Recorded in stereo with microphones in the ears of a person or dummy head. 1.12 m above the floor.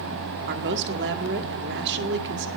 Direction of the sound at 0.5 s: 60° right (ahead or behind).